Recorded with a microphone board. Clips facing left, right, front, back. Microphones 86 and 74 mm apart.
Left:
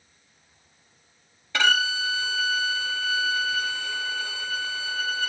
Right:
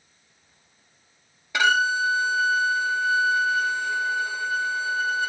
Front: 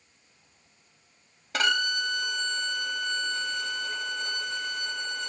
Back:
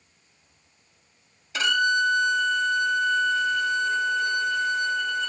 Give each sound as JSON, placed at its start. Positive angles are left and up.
{"t": 1.5, "sound": "a violin", "azimuth_deg": -15, "distance_m": 1.6}